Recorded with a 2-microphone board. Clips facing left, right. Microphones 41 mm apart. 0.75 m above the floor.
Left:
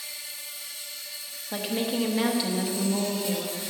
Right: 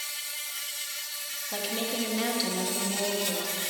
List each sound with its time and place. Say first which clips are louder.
0.0 s an insect: right 3 dB; 70° right (ahead or behind), 1.2 m
1.5 s a woman speaking: left 4 dB; 20° left (ahead or behind), 1.1 m